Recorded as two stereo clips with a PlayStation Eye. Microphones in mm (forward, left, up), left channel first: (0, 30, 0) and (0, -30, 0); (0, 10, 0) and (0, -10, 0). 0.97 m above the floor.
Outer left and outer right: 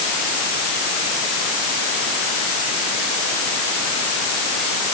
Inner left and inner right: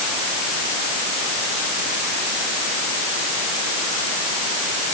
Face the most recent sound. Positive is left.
No sound to turn to.